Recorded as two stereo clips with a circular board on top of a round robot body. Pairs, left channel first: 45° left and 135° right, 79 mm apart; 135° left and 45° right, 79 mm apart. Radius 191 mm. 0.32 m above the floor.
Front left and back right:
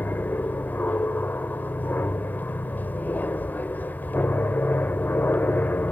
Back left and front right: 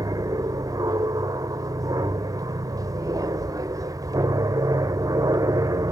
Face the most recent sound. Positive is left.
turn(degrees=-20)